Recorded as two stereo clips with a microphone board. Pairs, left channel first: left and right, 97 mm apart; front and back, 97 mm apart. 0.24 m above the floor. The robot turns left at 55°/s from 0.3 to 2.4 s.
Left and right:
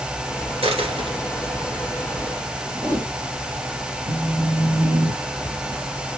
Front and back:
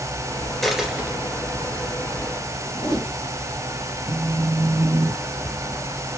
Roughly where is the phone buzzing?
Behind right.